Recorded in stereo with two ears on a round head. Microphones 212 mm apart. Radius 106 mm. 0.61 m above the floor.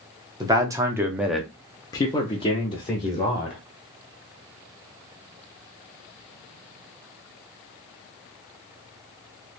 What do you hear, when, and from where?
0.4 s a man speaking: 15° right (ahead or behind), 1.0 m; by 3.6 s 25° left (ahead or behind), 1.5 m